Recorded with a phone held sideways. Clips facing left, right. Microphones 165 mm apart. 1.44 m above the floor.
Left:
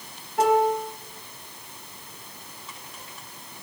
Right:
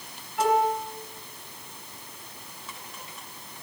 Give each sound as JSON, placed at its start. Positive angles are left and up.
{"t": 0.4, "sound": "a piano", "side_deg": 50, "distance_m": 3.0}